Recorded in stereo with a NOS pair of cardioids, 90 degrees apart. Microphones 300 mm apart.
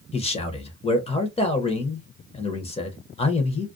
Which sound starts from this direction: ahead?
A man speaking, at 0.1 s.